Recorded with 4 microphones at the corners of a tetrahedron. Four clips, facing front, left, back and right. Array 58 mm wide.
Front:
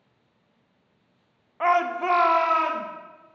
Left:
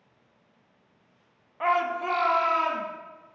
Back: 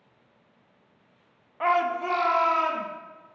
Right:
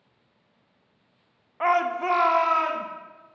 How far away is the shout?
About 0.6 m.